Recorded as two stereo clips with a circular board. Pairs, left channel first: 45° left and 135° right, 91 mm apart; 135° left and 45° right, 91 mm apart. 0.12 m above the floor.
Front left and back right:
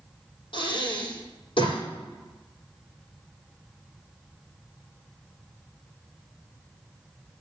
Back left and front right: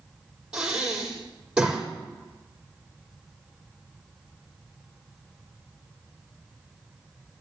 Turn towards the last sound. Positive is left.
turn(degrees=35)